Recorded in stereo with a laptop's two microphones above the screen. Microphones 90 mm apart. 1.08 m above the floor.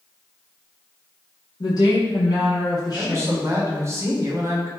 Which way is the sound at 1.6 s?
45° left (ahead or behind).